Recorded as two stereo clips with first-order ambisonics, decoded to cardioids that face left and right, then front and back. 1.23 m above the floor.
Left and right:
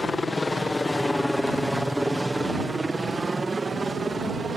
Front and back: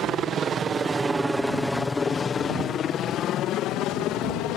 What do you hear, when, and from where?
0.0 s a helicopter: 160° left; by 4.6 s 15° right